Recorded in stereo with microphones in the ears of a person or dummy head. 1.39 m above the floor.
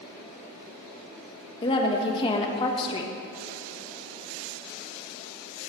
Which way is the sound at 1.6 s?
30° left (ahead or behind).